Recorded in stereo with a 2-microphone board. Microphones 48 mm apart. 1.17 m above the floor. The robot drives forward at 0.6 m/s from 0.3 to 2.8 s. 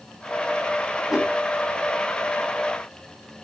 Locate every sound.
1.1 s a whoosh: 10° right (ahead or behind), 4.5 m